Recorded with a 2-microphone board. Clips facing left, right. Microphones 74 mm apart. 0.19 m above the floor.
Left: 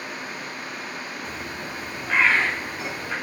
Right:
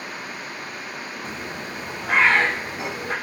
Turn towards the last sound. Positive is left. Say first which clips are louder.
# right 1 dB
turn(degrees=-70)  # may be behind; listen again after turning